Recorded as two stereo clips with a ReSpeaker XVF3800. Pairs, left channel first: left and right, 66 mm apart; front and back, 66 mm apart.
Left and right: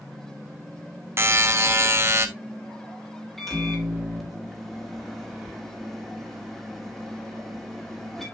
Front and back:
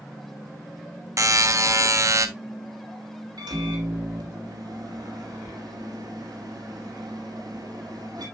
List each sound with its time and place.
1.2 s a buzzer: 135° right, 0.9 m
3.4 s a microwave: straight behind, 2.5 m